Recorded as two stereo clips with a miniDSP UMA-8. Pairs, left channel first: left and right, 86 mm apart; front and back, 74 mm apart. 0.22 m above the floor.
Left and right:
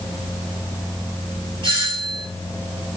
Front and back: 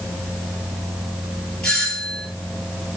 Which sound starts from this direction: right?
A doorbell, at 1.6 s.